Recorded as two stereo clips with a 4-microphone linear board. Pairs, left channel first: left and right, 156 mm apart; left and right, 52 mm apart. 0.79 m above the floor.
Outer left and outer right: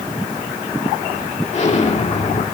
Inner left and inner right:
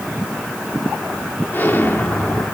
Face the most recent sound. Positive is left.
turn(degrees=45)  # may be behind; listen again after turning